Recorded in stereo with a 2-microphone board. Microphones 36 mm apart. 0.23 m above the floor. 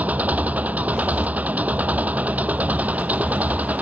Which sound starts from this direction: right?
An engine running, at 0.0 s.